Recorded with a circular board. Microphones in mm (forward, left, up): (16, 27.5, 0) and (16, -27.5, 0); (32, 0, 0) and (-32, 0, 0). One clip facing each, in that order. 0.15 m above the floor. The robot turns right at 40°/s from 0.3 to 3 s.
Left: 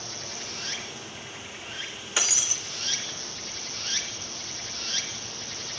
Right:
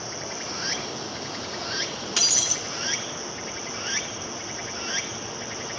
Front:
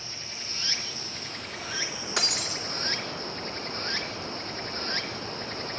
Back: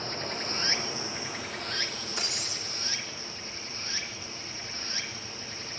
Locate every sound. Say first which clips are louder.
0.0 s running water: right 5 dB, back 8 dB; 140° right, 1.4 m; by 5.8 s 35° right, 1.4 m
2.2 s breaking glass: left 2 dB, front 8 dB; 15° left, 3.5 m; by 2.6 s 30° left, 3.5 m